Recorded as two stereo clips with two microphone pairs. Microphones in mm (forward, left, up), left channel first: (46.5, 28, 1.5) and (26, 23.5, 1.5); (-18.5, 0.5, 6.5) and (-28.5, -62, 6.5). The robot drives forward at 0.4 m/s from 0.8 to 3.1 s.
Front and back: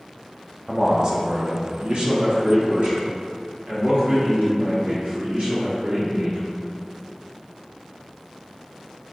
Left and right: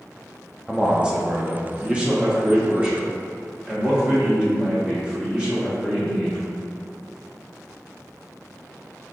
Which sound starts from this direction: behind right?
A man speaking, at 0.7 s.